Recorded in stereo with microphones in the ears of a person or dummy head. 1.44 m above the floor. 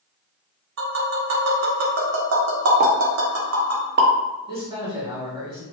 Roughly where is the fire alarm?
No fire alarm in this recording.